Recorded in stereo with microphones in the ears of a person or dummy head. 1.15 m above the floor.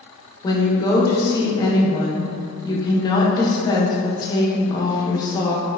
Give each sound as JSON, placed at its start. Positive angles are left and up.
{"t": 0.4, "sound": "a woman speaking", "side_deg": 20, "distance_m": 1.0}